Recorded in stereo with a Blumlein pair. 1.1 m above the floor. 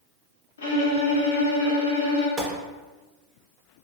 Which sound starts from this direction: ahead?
A gunshot, at 2.4 s.